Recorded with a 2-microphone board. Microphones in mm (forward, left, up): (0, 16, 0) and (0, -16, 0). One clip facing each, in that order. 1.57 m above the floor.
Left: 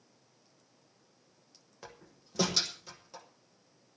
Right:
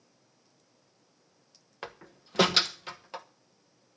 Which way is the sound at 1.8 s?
55° right (ahead or behind).